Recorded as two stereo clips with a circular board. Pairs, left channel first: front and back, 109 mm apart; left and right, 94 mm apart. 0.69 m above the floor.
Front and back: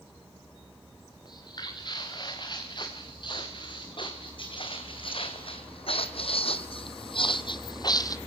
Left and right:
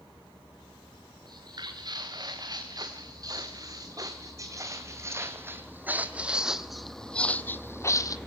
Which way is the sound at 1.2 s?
50° right.